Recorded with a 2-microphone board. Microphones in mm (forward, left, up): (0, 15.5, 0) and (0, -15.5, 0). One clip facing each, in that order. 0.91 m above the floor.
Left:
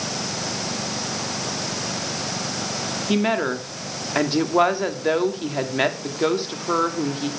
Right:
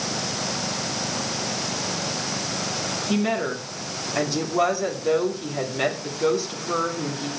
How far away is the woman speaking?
About 2 m.